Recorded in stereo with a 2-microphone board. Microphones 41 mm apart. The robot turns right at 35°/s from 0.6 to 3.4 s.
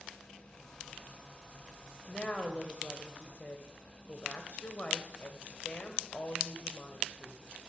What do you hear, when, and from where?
2.1 s a woman speaking: 30° left, 1.4 m; by 7.4 s 80° left, 1.4 m